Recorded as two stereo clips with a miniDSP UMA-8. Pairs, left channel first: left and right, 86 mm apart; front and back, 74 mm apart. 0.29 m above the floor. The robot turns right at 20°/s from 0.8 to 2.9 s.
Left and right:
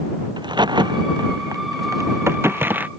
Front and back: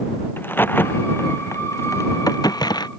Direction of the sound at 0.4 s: 60° right.